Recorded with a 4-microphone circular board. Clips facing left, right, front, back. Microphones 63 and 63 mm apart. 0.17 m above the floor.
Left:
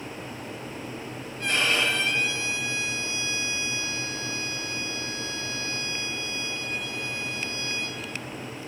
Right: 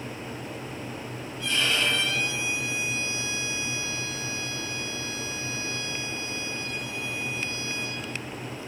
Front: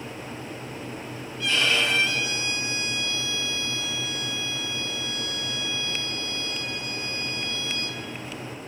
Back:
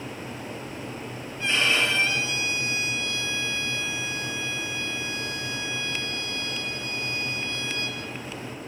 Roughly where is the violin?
Behind left.